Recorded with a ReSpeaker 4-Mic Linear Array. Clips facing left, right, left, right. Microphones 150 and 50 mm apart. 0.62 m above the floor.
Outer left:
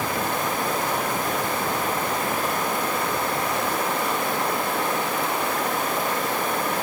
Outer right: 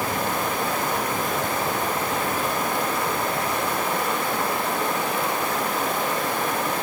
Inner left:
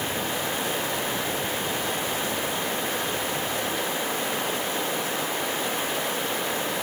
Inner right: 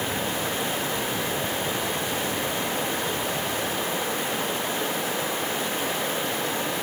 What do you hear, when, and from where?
Only background noise.